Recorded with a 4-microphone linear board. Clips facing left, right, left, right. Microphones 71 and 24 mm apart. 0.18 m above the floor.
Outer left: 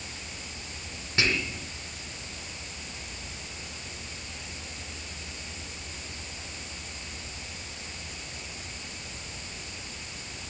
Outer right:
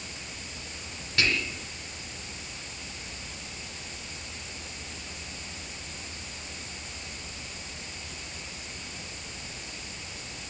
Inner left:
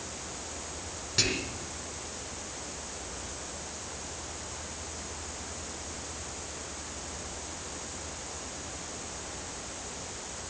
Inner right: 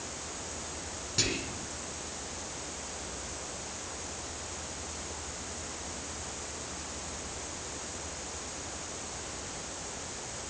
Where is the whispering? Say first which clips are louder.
Even, inner left 3 dB; 20° left (ahead or behind), 1.7 m.